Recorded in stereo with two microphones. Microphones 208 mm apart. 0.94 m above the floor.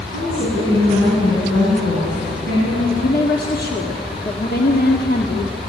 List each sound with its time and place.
0.1 s a woman speaking: 75° left (ahead or behind), 9.5 m
2.9 s a woman speaking: 45° left (ahead or behind), 1.5 m